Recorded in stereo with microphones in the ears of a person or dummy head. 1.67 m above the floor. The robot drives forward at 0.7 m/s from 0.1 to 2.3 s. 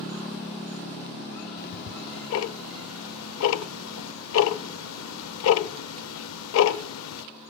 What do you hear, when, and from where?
1.6 s ticking: 55° left (ahead or behind), 0.8 m; by 7.2 s 80° left, 0.6 m